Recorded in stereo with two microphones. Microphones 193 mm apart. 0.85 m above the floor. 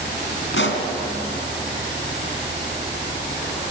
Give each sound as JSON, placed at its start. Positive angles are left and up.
{"t": 0.5, "sound": "a pop", "side_deg": 80, "distance_m": 3.0}